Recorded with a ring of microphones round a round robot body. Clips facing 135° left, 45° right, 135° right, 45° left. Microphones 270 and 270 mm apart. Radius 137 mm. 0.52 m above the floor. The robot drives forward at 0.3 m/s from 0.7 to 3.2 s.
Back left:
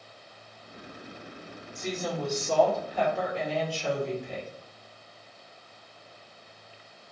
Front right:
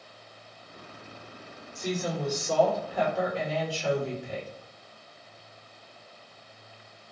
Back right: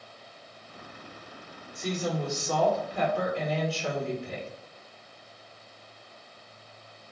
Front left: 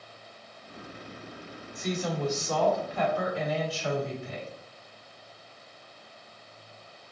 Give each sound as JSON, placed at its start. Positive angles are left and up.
{"t": 1.8, "sound": "a woman speaking", "azimuth_deg": -120, "distance_m": 1.8}